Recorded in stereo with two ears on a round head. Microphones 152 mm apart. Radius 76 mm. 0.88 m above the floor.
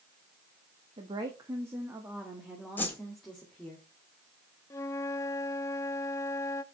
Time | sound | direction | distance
1.0 | a woman speaking | 30° right (ahead or behind) | 1.2 m
2.8 | a whoosh | 10° left (ahead or behind) | 1.6 m
4.7 | a flute | 15° left (ahead or behind) | 0.5 m